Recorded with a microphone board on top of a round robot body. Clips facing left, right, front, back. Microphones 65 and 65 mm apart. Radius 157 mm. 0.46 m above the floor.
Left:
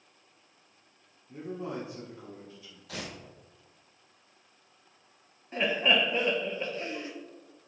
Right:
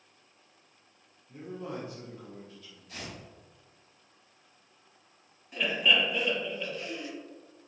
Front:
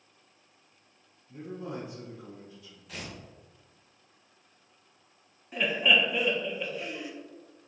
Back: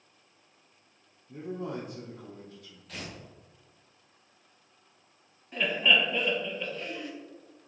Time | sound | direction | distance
1.3 | a man speaking | 165° left | 1.2 m
2.9 | tearing paper | 85° left | 0.8 m
5.5 | laughter | 75° left | 1.0 m